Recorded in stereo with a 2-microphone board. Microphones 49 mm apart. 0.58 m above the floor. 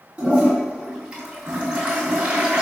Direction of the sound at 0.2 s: 25° right (ahead or behind).